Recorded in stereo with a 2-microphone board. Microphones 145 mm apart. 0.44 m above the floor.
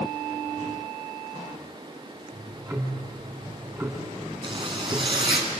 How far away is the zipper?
About 4 m.